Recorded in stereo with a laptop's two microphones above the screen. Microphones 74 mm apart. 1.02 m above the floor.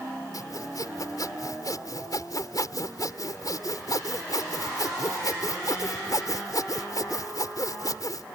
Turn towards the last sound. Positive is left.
turn(degrees=60)  # may be behind; listen again after turning